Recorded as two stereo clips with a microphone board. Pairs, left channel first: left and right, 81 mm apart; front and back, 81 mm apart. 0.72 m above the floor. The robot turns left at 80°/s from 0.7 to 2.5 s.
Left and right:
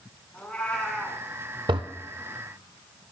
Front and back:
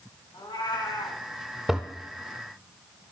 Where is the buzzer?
No buzzer in this recording.